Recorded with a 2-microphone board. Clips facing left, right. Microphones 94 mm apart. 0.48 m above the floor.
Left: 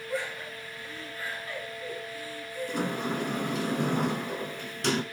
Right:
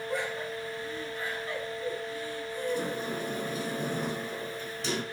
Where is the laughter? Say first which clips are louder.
Even; 20° right (ahead or behind), 5 m.